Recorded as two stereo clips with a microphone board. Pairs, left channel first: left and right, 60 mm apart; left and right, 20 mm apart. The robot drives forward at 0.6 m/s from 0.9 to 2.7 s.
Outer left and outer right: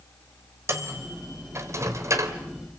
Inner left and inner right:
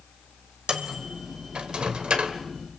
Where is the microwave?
50° right (ahead or behind), 3.5 m; by 2.4 s 60° right (ahead or behind), 3 m.